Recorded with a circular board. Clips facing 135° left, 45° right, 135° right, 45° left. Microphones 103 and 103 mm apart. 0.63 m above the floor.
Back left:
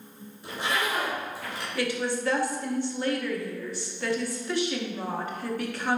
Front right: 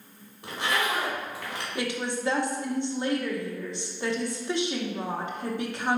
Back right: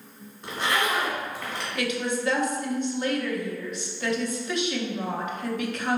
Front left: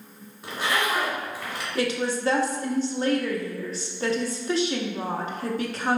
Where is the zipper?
35° right, 1.5 m.